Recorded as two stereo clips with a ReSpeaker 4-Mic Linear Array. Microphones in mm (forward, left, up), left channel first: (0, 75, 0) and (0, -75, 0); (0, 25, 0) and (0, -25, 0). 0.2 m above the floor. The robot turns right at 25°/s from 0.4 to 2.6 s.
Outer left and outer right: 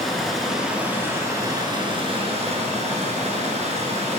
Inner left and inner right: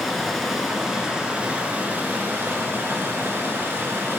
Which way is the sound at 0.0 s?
Straight behind.